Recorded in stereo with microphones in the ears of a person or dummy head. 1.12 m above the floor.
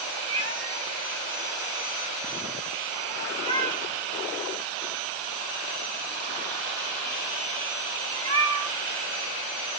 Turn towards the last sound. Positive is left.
turn(degrees=-35)  # may be behind; listen again after turning